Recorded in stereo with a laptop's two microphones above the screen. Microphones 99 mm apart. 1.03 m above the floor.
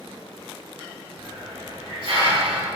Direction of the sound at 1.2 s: 65° right (ahead or behind).